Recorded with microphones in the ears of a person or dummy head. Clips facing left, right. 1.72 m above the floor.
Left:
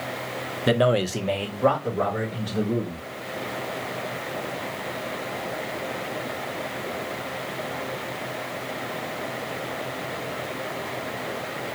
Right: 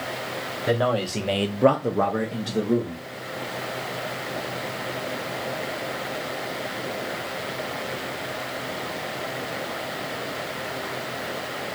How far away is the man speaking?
About 0.7 m.